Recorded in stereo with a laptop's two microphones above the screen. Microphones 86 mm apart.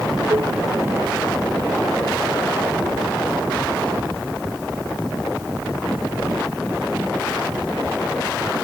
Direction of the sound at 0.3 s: 45° right (ahead or behind).